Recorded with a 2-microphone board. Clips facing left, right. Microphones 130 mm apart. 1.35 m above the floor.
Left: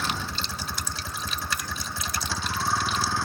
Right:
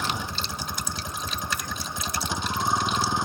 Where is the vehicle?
15° right (ahead or behind); by 3.2 s 20° right (ahead or behind).